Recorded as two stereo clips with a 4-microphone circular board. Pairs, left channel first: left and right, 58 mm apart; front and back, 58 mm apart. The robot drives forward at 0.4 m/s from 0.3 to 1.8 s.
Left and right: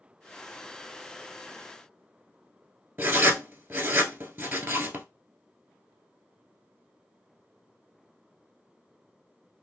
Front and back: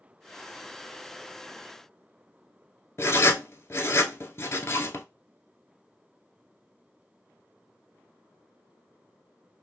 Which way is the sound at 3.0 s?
45° right.